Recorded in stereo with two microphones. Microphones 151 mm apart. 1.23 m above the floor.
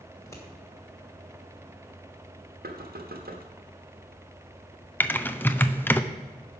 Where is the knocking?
80° right, 1.3 m.